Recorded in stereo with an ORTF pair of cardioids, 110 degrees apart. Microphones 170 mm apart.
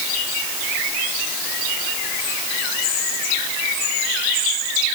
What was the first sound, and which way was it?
Only background noise.